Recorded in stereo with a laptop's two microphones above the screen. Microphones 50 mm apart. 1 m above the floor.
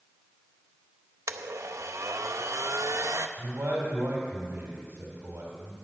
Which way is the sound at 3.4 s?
60° right (ahead or behind).